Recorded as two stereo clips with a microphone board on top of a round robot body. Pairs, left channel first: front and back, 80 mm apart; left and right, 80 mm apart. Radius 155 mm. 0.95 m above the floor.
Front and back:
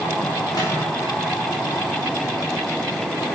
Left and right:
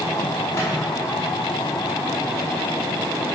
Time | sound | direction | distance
0.5 | a microwave | 35° left | 3 m